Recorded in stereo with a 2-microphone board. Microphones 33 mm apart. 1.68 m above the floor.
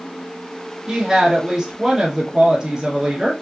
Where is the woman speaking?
20° right (ahead or behind), 1.5 m.